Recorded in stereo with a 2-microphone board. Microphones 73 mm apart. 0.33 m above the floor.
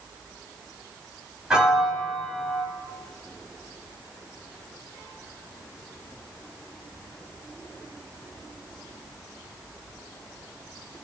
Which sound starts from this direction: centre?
A piano, at 1.5 s.